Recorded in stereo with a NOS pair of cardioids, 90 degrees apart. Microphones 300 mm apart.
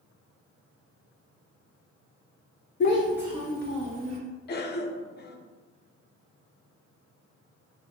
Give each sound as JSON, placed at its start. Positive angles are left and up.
{"t": 2.8, "sound": "a child speaking", "azimuth_deg": 35, "distance_m": 0.5}
{"t": 4.5, "sound": "a cough", "azimuth_deg": 35, "distance_m": 0.6}